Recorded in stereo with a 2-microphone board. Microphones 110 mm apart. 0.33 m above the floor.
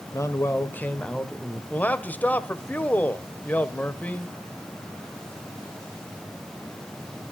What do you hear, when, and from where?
0.1 s a man speaking: 30° left (ahead or behind), 1.4 m; by 1.6 s centre (ahead or behind), 1.2 m
1.7 s a man speaking: 15° left (ahead or behind), 1.2 m